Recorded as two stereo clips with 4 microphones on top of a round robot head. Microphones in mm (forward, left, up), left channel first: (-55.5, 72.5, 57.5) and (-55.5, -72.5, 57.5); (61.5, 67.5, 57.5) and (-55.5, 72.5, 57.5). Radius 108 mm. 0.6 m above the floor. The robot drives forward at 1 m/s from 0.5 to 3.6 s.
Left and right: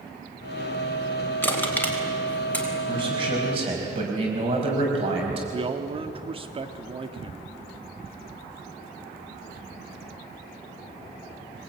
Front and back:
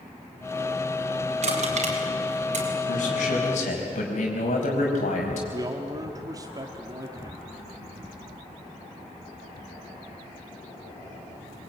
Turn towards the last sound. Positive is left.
turn(degrees=-130)